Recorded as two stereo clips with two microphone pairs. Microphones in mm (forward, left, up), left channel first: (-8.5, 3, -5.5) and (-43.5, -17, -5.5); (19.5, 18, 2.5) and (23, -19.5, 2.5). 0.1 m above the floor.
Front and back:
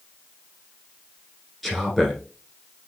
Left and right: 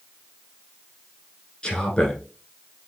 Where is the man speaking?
125° left, 1.4 m.